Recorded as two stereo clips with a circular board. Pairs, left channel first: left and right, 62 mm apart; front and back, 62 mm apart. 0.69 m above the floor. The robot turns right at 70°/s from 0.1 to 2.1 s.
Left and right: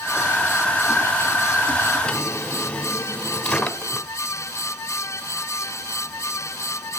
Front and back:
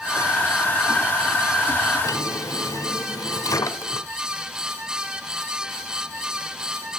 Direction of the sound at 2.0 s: 10° left.